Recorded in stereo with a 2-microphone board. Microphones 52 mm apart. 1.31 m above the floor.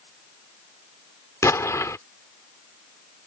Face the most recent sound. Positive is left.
turn(degrees=75)  # may be behind; listen again after turning